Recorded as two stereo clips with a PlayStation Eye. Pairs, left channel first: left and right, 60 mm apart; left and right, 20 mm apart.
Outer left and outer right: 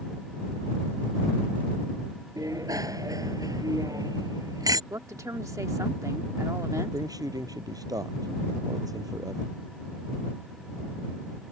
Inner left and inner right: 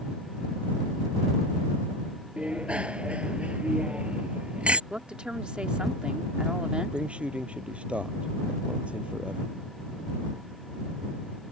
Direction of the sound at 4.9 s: 60° right (ahead or behind).